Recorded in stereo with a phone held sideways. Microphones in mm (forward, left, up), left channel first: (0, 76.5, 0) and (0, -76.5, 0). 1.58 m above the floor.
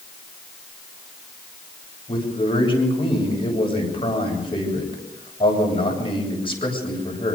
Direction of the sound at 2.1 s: 35° left (ahead or behind).